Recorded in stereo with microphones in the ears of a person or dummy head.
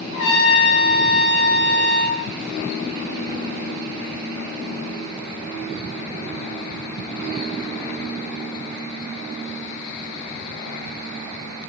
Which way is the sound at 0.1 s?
80° left.